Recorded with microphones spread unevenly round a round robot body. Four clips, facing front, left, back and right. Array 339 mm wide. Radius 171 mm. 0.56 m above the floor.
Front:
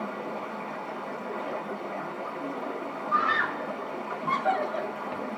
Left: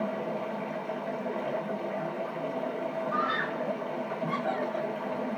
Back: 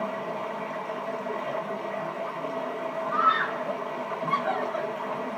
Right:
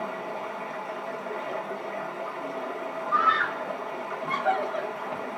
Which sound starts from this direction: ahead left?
A scream, at 3.1 s.